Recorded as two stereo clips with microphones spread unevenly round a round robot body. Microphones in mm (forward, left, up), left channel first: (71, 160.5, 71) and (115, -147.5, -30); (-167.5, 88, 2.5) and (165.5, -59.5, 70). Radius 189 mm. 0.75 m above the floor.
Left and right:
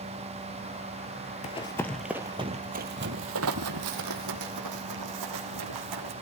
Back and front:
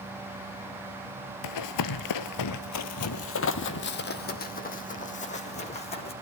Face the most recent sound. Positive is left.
turn(degrees=-125)